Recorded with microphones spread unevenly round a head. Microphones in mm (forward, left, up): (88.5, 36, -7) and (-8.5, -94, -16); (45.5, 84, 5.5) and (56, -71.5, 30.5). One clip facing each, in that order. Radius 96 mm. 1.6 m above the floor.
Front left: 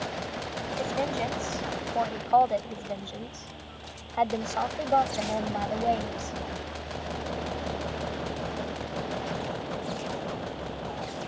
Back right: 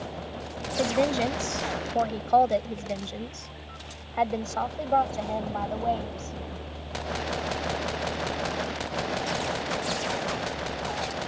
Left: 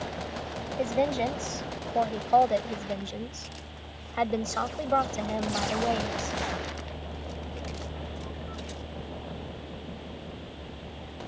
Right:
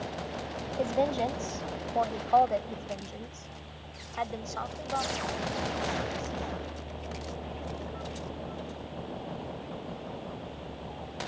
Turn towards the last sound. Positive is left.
turn(degrees=125)